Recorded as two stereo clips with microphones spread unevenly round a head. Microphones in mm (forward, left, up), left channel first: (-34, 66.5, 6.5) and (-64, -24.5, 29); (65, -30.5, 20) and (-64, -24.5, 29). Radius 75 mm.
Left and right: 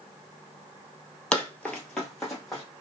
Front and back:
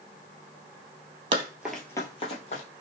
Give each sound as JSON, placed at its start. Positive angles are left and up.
{"t": 1.3, "sound": "running footsteps", "azimuth_deg": 170, "distance_m": 1.1}